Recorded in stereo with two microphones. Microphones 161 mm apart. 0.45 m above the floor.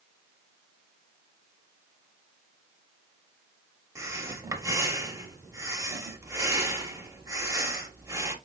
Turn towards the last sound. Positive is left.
turn(degrees=-20)  # may be behind; listen again after turning